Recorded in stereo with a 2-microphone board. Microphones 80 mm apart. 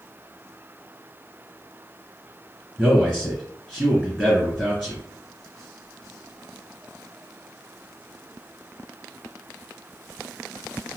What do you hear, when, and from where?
2.8 s a man speaking: 5° left (ahead or behind), 2.0 m